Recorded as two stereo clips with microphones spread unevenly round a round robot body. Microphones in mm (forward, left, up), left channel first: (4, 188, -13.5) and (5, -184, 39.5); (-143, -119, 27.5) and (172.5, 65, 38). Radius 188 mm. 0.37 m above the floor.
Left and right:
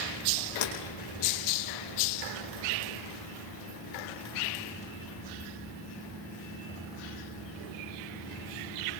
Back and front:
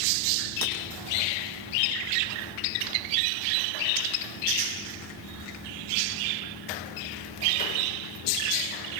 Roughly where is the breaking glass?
Left.